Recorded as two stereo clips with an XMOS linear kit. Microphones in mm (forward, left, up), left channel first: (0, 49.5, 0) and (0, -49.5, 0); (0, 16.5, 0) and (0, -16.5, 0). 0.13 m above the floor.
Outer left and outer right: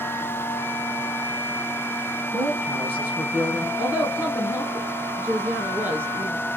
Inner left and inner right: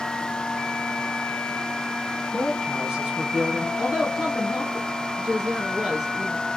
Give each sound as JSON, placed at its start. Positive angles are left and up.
{"t": 2.3, "sound": "a woman speaking", "side_deg": -20, "distance_m": 3.5}
{"t": 3.8, "sound": "a woman speaking", "side_deg": -20, "distance_m": 2.0}